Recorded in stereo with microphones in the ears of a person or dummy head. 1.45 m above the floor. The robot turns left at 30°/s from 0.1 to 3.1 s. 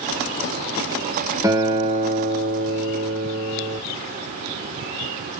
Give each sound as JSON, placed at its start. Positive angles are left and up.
{"t": 1.4, "sound": "a guitar", "azimuth_deg": -15, "distance_m": 0.9}